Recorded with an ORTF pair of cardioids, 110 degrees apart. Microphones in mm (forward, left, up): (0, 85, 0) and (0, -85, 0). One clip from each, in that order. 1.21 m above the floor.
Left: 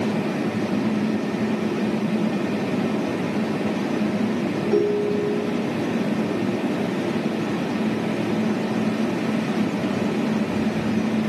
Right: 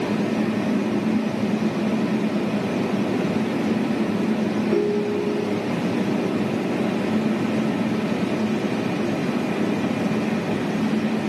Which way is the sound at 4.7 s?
30° left.